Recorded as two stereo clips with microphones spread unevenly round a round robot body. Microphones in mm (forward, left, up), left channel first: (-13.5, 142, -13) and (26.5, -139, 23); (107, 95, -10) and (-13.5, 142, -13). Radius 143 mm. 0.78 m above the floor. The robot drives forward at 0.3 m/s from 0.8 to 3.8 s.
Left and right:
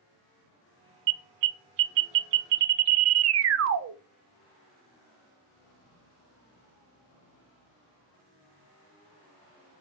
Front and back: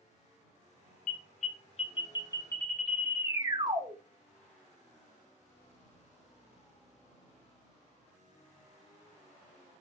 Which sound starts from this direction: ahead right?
An alarm, at 1.1 s.